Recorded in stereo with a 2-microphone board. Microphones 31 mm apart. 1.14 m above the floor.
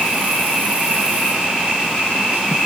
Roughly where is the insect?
Right.